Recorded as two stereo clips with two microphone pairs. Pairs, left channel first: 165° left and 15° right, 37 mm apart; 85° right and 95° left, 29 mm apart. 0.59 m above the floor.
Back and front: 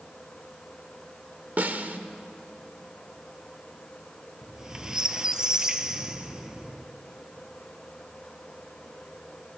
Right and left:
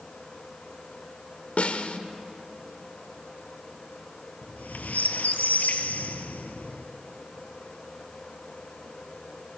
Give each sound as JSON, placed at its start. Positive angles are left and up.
{"t": 1.6, "sound": "a snare drum", "azimuth_deg": -50, "distance_m": 1.4}
{"t": 4.4, "sound": "a squeak", "azimuth_deg": -85, "distance_m": 1.6}